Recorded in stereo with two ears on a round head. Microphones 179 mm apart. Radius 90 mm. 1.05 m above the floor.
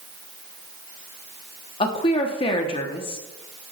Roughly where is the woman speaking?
Left.